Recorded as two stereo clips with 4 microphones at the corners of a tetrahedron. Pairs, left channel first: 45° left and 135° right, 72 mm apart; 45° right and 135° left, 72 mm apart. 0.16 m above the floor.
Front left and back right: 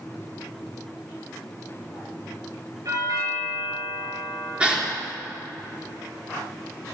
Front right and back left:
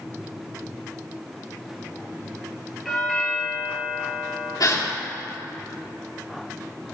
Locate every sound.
2.9 s a doorbell: 135° right, 3.5 m
4.6 s a gasp: 60° right, 3 m